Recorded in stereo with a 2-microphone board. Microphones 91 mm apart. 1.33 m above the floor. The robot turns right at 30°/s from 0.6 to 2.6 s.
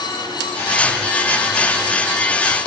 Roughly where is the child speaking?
I don't hear a child speaking.